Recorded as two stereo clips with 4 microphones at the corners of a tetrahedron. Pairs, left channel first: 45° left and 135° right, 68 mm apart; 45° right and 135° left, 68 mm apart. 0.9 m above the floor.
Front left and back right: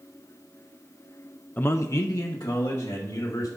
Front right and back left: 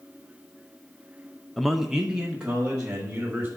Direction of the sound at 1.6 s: 35° left.